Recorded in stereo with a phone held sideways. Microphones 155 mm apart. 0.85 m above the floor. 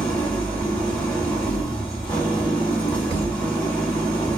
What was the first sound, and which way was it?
An engine running, 10° left (ahead or behind).